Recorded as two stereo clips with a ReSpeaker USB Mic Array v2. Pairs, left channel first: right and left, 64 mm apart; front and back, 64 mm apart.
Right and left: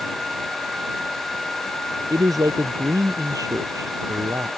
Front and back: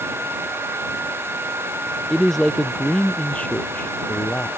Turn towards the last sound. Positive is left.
turn(degrees=60)